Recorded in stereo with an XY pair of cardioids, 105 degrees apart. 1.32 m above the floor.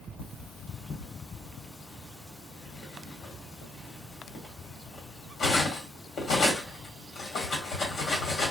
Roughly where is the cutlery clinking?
Left.